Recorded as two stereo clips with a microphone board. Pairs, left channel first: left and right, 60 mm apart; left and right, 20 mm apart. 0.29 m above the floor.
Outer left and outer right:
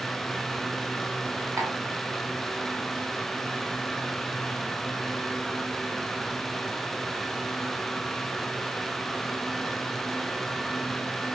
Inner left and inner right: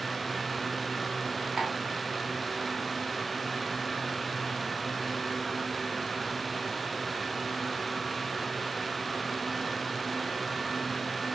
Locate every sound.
1.6 s tapping: 55° right (ahead or behind), 1.7 m